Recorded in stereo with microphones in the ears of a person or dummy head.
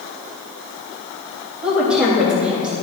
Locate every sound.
1.6 s a woman speaking: 5° right (ahead or behind), 3 m